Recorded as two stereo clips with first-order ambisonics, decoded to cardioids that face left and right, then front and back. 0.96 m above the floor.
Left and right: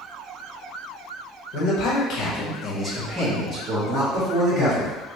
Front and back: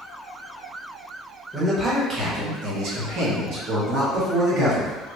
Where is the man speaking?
100° left, 1.0 m; by 5.0 s 140° right, 2.0 m.